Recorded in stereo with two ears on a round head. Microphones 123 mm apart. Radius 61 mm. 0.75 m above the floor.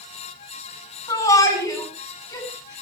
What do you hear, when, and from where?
1.1 s a shout: 30° left (ahead or behind), 7 m; by 2.8 s 25° left (ahead or behind), 5.5 m